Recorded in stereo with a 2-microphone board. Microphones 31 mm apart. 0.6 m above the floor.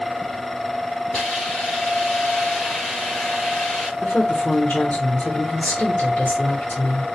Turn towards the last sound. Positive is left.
turn(degrees=60)  # may be behind; listen again after turning